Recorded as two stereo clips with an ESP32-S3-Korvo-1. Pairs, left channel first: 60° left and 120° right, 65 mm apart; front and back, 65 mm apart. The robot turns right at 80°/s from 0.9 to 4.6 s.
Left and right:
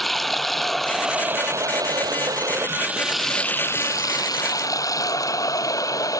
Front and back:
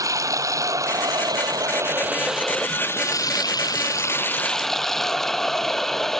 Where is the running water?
150° left; by 6.2 s 85° left.